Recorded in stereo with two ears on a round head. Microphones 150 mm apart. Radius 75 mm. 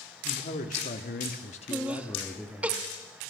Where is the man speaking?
45° left (ahead or behind), 1.9 m; by 2.7 s centre (ahead or behind), 1.7 m.